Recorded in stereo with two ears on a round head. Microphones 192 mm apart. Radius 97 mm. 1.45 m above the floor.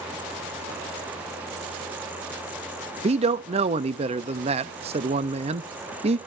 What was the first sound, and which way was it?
A man speaking, 25° right (ahead or behind).